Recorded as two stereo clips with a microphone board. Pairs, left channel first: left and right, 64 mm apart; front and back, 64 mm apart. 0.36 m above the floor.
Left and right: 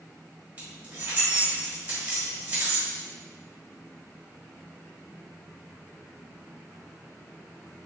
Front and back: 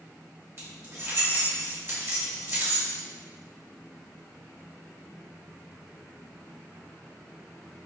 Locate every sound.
0.6 s keys jangling: 150° right, 1.1 m